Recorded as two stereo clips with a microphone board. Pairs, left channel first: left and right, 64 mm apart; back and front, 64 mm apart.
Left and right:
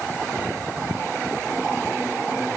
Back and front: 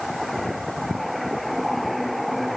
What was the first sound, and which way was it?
Only background noise.